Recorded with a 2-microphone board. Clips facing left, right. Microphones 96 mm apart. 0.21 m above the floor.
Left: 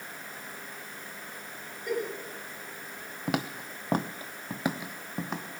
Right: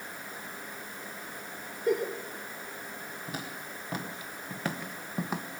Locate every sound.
1.9 s a giggle: 30° right (ahead or behind), 3 m
3.3 s footsteps: 80° left, 1.2 m; by 5.5 s 5° right (ahead or behind), 1.6 m